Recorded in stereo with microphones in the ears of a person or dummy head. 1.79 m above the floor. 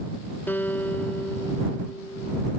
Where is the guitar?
10° left (ahead or behind).